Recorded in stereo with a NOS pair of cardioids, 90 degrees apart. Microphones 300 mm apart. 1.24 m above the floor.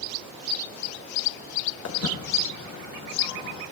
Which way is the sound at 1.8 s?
60° left.